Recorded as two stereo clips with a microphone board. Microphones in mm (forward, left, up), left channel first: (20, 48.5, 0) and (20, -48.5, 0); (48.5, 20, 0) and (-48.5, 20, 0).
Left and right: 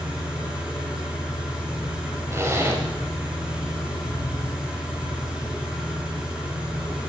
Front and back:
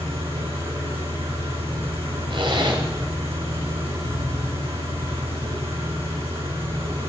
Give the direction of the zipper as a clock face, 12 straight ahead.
5 o'clock.